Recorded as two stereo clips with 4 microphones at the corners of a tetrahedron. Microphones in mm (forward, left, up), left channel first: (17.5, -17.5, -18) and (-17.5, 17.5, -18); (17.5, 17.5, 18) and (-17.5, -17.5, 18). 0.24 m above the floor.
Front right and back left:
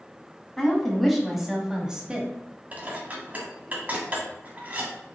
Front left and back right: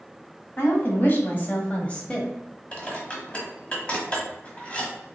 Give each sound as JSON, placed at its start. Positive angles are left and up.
{"t": 0.6, "sound": "a woman speaking", "azimuth_deg": 35, "distance_m": 1.3}
{"t": 2.7, "sound": "dishes clattering", "azimuth_deg": 95, "distance_m": 1.1}